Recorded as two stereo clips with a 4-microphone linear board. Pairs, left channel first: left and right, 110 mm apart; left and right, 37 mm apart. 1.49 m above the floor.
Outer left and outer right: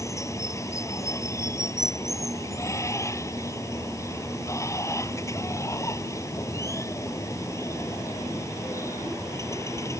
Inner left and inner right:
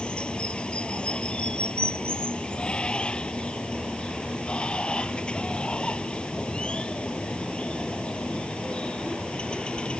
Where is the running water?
30° left (ahead or behind).